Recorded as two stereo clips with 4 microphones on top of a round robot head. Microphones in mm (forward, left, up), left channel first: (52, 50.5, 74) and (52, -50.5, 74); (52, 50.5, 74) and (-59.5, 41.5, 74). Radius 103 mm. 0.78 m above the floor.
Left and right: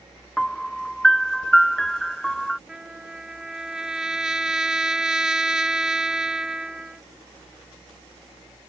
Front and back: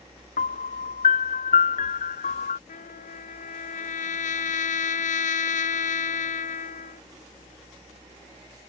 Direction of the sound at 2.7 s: 5° right.